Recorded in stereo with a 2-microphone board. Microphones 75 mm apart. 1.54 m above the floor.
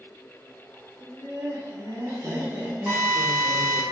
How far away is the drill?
About 1.7 m.